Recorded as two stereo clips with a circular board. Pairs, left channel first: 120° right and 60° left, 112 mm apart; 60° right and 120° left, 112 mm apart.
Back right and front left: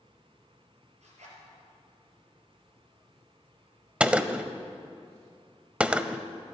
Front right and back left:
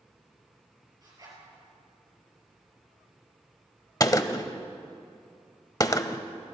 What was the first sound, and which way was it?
A zipper, 65° left.